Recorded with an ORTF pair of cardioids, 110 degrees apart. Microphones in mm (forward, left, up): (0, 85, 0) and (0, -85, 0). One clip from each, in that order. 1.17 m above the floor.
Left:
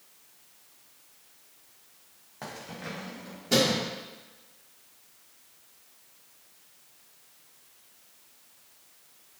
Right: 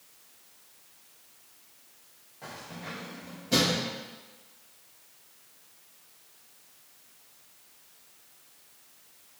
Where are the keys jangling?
65° left, 0.9 m; by 3.9 s 55° left, 2.5 m.